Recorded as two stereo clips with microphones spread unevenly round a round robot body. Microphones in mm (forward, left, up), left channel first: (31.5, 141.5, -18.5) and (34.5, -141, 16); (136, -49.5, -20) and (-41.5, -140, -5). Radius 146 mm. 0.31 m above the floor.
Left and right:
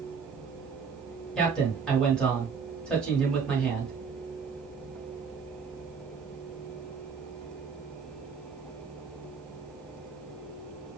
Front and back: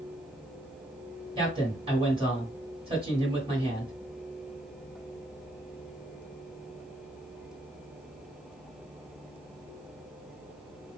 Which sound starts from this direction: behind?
A man speaking, at 1.4 s.